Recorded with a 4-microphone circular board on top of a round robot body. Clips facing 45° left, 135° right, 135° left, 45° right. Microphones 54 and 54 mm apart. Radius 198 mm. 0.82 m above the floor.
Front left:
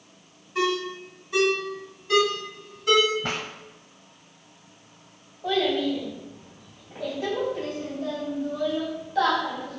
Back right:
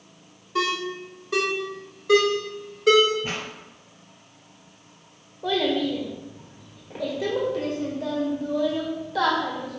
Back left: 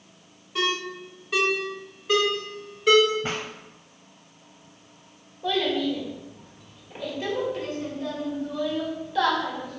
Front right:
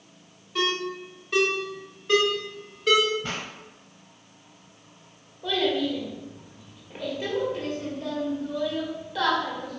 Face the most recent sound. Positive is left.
turn(degrees=-130)